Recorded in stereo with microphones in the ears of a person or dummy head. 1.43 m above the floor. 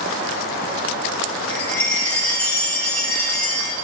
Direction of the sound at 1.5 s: 15° left (ahead or behind).